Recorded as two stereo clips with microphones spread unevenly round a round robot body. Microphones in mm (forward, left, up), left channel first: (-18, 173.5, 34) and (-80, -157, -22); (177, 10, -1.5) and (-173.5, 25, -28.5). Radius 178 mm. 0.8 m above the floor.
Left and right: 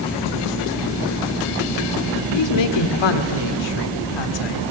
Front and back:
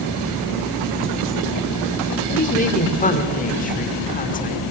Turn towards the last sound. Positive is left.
turn(degrees=65)